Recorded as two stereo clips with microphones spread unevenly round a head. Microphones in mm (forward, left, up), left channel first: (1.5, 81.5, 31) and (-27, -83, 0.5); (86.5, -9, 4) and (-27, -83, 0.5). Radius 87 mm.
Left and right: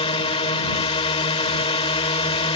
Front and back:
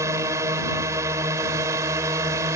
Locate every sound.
0.0 s a drone: 140° left